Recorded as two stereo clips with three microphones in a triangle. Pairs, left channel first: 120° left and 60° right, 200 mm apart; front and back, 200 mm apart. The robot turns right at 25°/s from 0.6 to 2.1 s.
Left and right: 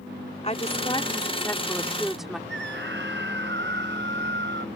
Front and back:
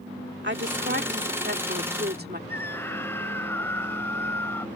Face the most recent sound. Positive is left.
turn(degrees=-80)